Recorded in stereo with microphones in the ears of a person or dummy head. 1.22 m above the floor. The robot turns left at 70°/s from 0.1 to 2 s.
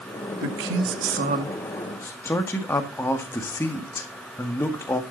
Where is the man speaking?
80° right, 1.8 m; by 5.0 s 170° left, 1.8 m.